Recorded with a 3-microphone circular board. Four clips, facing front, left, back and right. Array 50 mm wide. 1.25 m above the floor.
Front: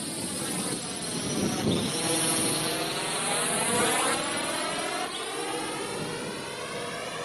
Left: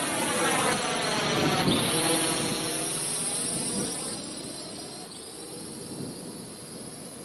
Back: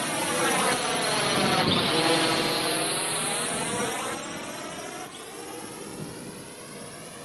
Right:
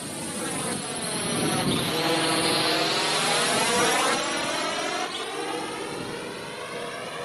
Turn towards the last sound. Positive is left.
turn(degrees=-65)